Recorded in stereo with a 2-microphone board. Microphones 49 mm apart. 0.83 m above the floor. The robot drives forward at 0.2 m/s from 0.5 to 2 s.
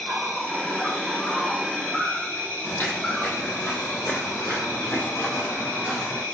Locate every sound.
0.0 s an insect: 30° left (ahead or behind), 4 m
2.6 s footsteps: 45° left (ahead or behind), 2.0 m; by 6.2 s 60° left (ahead or behind), 2.5 m